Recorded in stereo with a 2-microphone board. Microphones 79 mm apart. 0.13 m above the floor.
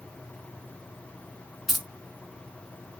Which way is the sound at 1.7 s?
5° right (ahead or behind).